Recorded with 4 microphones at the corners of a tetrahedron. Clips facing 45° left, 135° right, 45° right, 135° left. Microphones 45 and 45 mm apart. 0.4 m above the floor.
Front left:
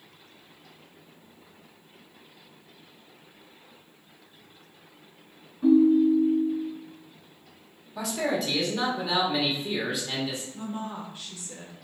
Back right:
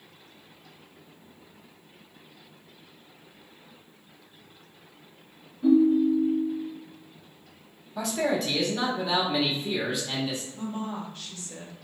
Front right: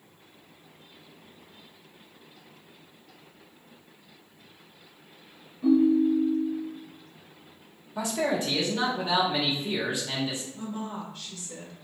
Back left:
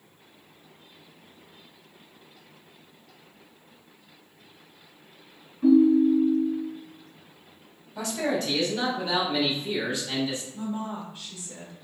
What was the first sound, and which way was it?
A ringtone, 75° left.